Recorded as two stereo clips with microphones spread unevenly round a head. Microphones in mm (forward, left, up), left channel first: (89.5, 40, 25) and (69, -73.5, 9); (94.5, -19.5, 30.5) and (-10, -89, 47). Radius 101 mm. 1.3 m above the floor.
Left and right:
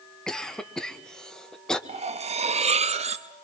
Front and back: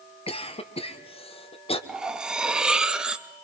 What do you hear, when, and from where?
0.3 s a cough: 5° right, 1.7 m
1.9 s cutlery clinking: 65° right, 1.1 m